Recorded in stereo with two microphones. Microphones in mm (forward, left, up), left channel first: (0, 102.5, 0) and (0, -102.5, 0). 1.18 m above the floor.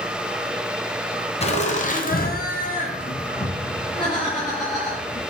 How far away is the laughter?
About 0.8 m.